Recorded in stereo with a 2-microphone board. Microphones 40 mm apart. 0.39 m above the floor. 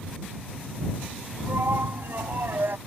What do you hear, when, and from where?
1.4 s a shout: 70° right (ahead or behind)